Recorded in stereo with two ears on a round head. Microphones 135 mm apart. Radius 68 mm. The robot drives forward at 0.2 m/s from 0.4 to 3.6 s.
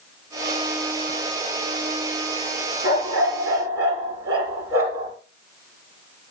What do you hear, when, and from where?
2.8 s a dog barking: 20° right (ahead or behind), 3.5 m; by 5.1 s 15° right (ahead or behind), 3.5 m